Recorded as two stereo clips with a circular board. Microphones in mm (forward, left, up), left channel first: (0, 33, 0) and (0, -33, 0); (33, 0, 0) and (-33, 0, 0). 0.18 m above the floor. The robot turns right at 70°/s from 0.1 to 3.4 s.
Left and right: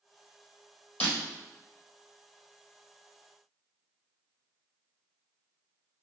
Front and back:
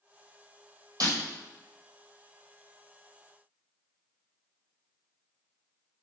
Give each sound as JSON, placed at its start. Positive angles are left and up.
{"t": 1.0, "sound": "breaking glass", "azimuth_deg": 160, "distance_m": 1.9}